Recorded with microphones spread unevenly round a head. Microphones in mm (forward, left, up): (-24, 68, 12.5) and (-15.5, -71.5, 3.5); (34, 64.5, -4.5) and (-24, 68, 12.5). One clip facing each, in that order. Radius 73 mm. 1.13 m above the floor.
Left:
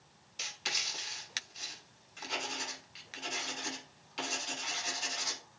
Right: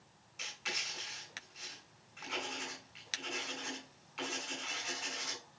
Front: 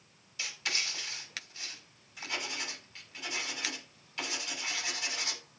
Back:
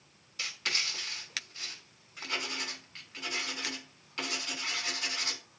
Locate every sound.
0.4 s writing: 140° left, 5 m